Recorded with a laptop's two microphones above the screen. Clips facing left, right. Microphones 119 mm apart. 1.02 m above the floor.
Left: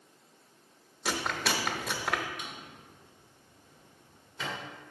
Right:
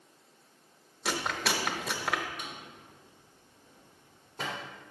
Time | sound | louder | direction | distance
1.1 | chewing | even | centre (ahead or behind) | 0.9 m
2.4 | a drawer | even | 45° right (ahead or behind) | 1.8 m